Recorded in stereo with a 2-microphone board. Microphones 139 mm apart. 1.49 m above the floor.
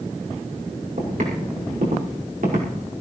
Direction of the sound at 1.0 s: 70° right (ahead or behind).